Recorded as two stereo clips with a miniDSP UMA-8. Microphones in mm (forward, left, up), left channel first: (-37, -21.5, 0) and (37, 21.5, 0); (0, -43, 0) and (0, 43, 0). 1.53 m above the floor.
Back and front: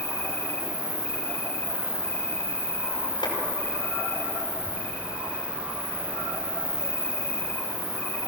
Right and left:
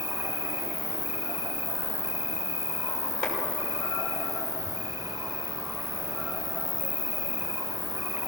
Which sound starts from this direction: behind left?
An insect, at 0.0 s.